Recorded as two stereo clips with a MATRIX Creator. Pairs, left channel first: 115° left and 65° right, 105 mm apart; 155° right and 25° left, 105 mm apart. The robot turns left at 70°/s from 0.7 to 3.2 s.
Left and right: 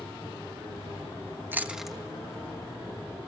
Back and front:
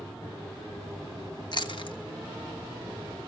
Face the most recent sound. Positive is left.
turn(degrees=110)